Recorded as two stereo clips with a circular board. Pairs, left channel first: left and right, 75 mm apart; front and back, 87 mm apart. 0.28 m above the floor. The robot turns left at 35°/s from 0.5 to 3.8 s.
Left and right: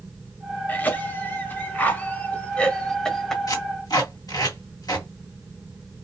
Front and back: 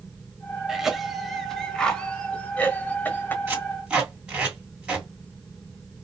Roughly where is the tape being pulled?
Behind left.